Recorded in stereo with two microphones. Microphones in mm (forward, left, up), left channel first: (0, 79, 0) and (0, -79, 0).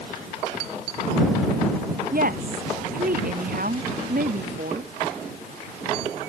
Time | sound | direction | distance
2.1 | a woman speaking | 70° right (ahead or behind) | ?